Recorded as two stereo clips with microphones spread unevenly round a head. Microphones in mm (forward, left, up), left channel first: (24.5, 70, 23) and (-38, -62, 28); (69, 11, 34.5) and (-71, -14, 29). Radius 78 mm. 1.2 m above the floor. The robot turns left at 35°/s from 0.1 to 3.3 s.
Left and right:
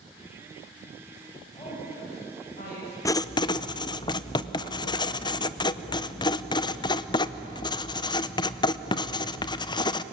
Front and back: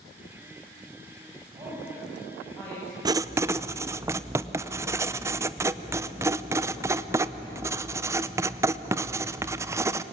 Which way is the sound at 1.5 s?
130° left.